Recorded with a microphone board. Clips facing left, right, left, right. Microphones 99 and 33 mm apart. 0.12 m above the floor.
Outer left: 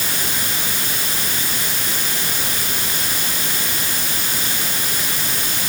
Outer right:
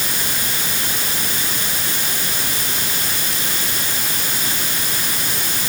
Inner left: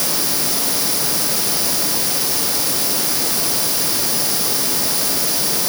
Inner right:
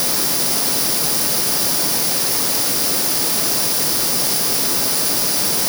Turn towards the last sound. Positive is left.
No sound to turn to.